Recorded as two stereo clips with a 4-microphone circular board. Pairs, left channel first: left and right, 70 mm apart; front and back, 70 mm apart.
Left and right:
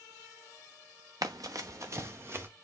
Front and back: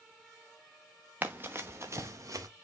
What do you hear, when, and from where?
1.2 s running footsteps: 115° right, 1.1 m; by 2.5 s 145° right, 1.4 m